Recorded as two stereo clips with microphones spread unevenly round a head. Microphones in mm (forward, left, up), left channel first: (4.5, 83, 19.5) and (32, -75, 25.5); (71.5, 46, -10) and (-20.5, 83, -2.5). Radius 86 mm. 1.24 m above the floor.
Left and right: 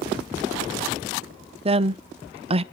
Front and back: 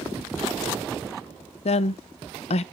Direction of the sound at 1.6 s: 25° right.